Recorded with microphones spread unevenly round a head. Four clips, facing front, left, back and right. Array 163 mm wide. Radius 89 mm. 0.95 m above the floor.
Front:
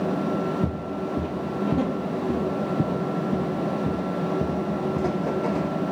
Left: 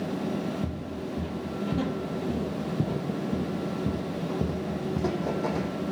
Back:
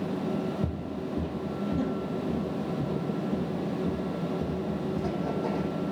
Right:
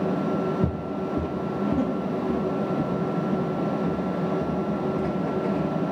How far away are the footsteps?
About 1.2 m.